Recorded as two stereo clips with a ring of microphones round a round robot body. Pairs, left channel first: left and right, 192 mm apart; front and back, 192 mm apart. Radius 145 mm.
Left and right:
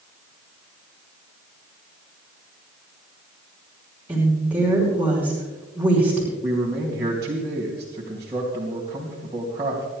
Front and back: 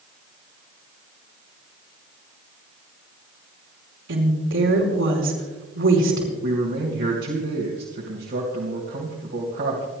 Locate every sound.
4.1 s a woman speaking: 170° right, 5.5 m
6.4 s a man speaking: 165° right, 3 m